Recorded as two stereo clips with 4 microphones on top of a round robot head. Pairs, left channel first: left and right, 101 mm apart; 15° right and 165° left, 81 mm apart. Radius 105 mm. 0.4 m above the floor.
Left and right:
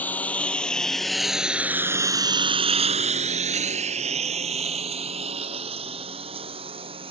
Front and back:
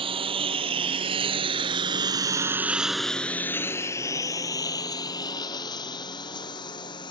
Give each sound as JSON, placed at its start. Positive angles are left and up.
{"t": 0.0, "sound": "a lawn mower", "azimuth_deg": 165}